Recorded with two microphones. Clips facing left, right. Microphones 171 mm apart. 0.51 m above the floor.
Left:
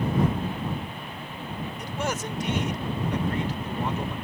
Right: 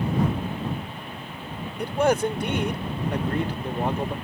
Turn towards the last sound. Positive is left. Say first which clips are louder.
# right 11 dB
turn(degrees=-55)  # may be behind; listen again after turning